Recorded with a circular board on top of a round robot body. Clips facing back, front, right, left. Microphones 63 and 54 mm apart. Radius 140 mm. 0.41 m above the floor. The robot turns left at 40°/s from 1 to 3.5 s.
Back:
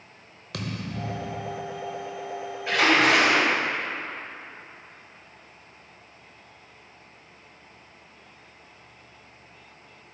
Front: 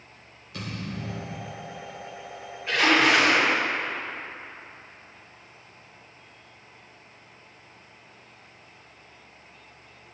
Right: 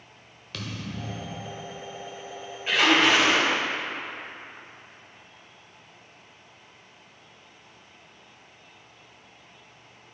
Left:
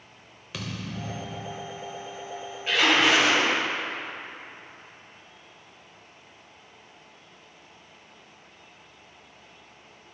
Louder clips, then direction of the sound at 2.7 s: Even, right 1 dB; 170° right.